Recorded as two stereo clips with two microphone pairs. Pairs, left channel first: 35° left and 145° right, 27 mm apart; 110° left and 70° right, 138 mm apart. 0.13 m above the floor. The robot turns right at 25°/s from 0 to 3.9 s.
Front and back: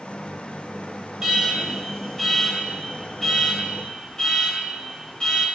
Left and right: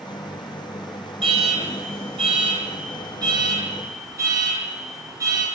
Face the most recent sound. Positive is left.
turn(degrees=-15)